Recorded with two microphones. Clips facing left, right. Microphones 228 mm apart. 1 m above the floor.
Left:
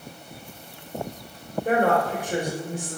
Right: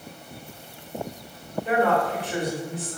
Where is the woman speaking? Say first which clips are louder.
Left 1 dB; 45° left (ahead or behind), 3.5 m.